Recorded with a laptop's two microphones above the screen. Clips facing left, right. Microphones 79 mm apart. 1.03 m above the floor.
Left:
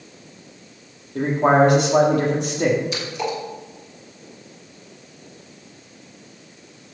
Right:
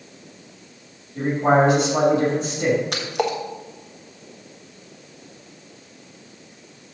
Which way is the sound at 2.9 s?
60° right (ahead or behind).